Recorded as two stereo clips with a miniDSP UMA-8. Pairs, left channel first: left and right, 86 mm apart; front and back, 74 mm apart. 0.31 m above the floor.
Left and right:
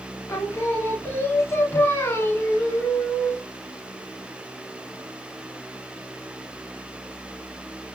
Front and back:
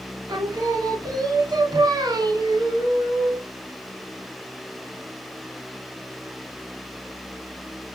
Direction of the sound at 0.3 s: 150° left.